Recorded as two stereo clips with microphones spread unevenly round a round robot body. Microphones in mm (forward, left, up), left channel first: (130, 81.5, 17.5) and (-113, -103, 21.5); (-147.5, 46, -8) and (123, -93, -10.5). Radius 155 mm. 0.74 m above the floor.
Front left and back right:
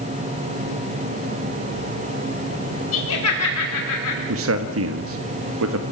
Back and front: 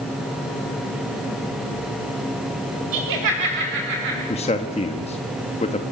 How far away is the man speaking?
About 1.3 m.